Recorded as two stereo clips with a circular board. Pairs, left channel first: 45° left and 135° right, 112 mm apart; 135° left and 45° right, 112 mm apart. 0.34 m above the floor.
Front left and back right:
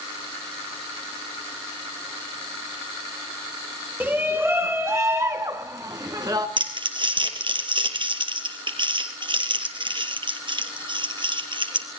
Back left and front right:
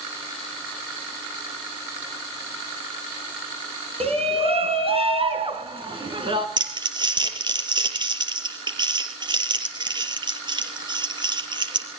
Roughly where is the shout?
Ahead right.